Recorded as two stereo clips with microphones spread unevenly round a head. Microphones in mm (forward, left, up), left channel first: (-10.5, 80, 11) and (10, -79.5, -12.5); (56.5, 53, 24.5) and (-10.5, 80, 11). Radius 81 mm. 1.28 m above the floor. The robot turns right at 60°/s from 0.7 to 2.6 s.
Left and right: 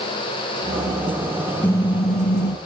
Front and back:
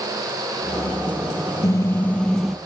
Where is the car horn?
20° left; by 2.6 s 75° left.